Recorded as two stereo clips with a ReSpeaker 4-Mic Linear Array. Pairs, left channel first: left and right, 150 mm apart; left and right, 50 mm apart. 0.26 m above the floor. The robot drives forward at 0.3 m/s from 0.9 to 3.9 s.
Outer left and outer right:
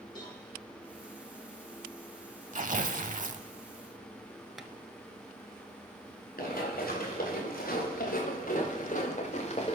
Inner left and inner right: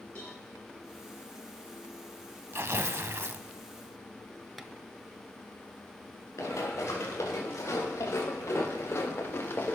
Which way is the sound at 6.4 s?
80° left.